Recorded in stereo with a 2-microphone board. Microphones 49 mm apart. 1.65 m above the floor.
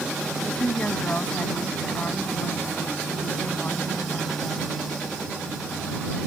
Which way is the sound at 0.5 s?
30° left (ahead or behind).